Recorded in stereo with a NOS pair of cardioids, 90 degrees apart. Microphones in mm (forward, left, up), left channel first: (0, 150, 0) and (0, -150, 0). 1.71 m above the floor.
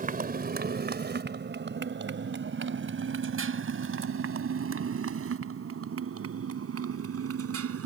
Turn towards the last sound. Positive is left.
turn(degrees=-50)